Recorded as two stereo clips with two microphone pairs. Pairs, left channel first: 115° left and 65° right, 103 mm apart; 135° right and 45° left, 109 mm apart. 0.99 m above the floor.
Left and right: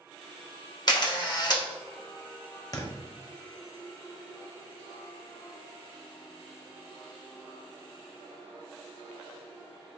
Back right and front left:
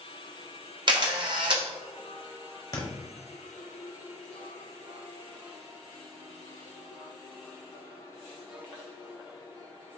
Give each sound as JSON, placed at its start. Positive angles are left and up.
{"t": 0.9, "sound": "a camera shutter", "azimuth_deg": 75, "distance_m": 0.7}
{"t": 2.7, "sound": "a thud", "azimuth_deg": 170, "distance_m": 0.7}